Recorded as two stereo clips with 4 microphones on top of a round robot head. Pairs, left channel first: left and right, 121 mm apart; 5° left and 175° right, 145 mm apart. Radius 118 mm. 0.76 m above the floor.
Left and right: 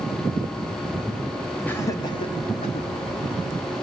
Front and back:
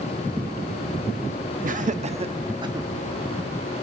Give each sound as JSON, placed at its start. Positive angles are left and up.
{"t": 1.6, "sound": "laughter", "azimuth_deg": 165, "distance_m": 0.9}